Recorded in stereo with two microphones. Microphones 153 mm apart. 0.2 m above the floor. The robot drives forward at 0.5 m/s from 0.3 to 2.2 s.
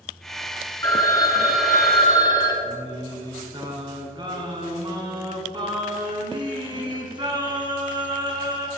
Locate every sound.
0.8 s a phone ringing: 20° left (ahead or behind), 1.7 m; by 2.5 s 30° left (ahead or behind), 1.2 m
2.6 s singing: 30° right (ahead or behind), 1.6 m